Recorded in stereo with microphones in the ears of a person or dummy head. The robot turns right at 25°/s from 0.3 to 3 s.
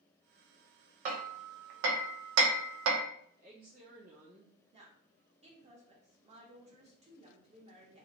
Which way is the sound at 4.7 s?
30° right (ahead or behind).